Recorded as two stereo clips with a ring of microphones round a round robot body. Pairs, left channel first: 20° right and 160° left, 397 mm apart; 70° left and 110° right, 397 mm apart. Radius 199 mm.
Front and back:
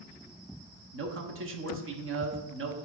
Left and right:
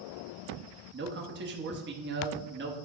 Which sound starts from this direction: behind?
A man speaking, at 0.9 s.